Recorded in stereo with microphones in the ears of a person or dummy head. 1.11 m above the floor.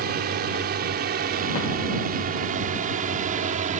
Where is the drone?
50° right (ahead or behind); by 3.8 s 40° right (ahead or behind).